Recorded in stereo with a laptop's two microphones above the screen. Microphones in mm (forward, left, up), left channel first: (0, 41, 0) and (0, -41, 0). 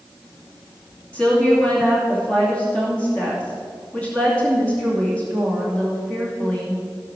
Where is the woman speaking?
15° left (ahead or behind), 2.5 m.